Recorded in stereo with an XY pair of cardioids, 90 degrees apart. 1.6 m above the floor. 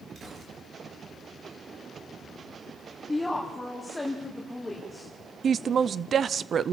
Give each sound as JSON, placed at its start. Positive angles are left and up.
{"t": 0.1, "sound": "a gunshot", "azimuth_deg": -60, "distance_m": 5.0}
{"t": 3.1, "sound": "a woman speaking", "azimuth_deg": 10, "distance_m": 3.5}
{"t": 5.4, "sound": "a woman speaking", "azimuth_deg": -55, "distance_m": 0.7}